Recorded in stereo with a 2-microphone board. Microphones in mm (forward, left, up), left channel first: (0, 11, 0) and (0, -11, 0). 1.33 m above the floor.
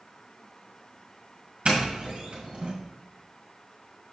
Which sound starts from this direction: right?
A doorbell, at 1.6 s.